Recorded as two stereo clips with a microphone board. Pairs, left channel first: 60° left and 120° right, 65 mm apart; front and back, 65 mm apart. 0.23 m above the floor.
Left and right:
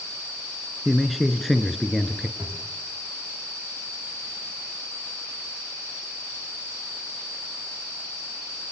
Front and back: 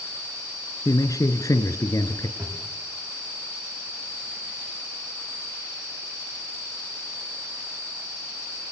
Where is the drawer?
120° right, 6.5 m.